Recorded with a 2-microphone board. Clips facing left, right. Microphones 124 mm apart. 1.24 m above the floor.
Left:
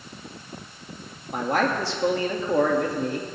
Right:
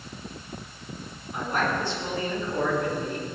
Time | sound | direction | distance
1.3 | a man speaking | 80° left | 2.5 m